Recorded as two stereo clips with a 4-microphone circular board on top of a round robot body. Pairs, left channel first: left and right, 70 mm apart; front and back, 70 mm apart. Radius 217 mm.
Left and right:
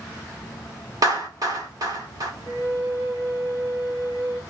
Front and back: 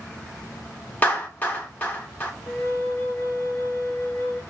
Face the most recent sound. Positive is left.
turn(degrees=-65)